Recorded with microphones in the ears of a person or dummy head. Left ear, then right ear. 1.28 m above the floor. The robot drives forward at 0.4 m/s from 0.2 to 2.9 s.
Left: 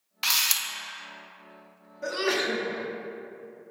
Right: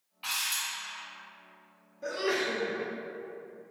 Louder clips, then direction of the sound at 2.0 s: Left 3 dB; 15° left (ahead or behind).